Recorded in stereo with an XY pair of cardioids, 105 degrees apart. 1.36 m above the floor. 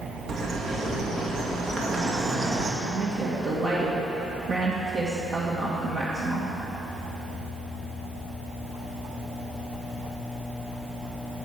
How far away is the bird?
About 2 m.